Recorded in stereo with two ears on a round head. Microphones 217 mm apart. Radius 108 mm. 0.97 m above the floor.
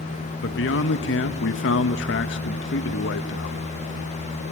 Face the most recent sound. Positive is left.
turn(degrees=50)  # may be behind; listen again after turning